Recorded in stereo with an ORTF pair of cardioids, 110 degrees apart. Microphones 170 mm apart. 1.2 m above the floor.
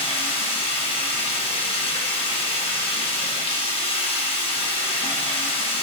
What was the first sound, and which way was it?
Running water, 35° left.